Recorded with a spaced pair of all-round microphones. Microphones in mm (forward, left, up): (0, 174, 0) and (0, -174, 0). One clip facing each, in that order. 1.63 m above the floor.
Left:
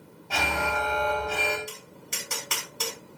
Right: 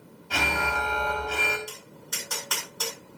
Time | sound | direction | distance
0.3 | an alarm | 20° right (ahead or behind) | 5.5 m
1.7 | tapping | 35° left (ahead or behind) | 6.5 m